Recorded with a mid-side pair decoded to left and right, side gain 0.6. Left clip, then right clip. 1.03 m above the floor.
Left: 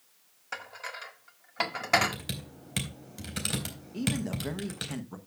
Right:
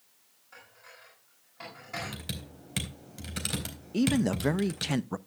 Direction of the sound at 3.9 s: 50° right.